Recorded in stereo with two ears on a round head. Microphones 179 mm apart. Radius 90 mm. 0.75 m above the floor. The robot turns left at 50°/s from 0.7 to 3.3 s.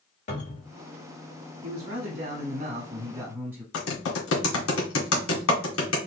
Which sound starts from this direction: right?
A man speaking, at 1.6 s.